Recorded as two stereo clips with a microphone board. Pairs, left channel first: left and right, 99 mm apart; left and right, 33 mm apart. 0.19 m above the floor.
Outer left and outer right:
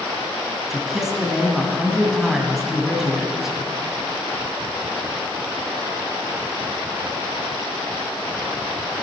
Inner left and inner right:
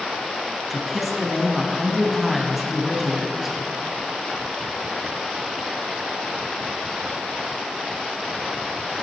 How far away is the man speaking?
About 1.2 m.